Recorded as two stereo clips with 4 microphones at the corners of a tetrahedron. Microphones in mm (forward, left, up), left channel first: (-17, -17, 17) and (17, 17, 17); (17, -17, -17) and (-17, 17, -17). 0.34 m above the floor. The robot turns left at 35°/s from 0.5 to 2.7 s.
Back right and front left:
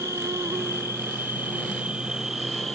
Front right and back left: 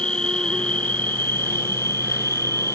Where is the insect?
25° left; by 2.8 s 50° right.